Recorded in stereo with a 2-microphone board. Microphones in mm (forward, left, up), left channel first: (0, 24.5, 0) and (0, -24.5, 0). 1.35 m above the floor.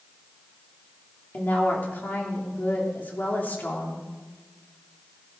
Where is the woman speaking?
35° left (ahead or behind), 3 m.